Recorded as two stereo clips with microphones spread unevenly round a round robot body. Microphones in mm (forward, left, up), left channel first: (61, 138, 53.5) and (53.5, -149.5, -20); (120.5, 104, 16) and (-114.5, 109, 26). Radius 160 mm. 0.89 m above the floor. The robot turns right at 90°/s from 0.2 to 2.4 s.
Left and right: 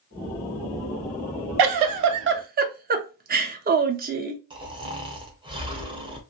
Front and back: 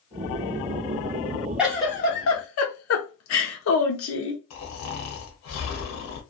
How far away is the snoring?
About 0.9 m.